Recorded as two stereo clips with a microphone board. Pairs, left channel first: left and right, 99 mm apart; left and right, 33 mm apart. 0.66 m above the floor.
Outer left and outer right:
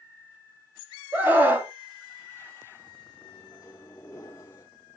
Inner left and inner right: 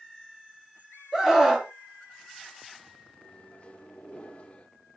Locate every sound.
1.1 s a scream: 20° right (ahead or behind), 1.5 m
3.2 s a microwave: 30° left (ahead or behind), 1.0 m